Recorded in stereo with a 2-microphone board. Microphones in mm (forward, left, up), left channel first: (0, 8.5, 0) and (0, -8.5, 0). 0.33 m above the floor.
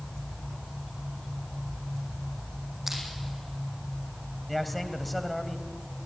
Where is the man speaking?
5° left (ahead or behind), 2 m.